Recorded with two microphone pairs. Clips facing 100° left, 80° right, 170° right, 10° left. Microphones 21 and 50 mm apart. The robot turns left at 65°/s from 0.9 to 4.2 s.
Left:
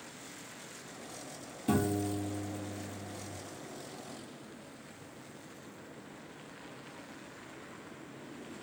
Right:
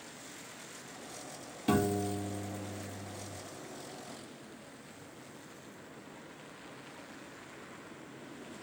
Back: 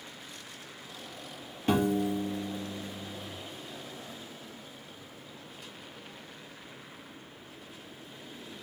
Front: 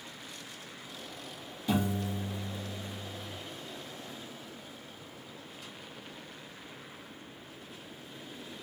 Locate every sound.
1.7 s a piano: 135° right, 0.6 m; by 3.3 s 120° left, 0.6 m